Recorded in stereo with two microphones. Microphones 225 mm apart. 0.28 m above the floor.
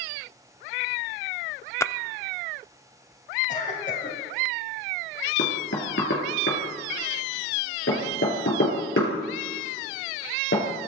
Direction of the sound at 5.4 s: 65° left (ahead or behind).